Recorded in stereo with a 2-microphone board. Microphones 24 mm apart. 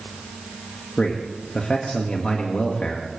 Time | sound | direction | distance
1.0 | a man speaking | 55° left (ahead or behind) | 1.6 m